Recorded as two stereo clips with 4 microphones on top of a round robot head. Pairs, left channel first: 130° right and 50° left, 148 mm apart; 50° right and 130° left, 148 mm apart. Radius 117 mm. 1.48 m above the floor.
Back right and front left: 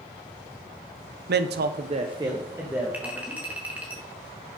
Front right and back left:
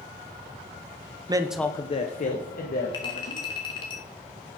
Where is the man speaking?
65° left, 0.8 m; by 3.9 s 35° right, 3.5 m.